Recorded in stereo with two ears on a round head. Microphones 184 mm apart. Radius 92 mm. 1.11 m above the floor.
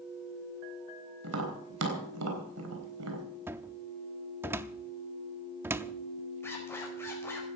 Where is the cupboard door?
10° right (ahead or behind), 0.6 m.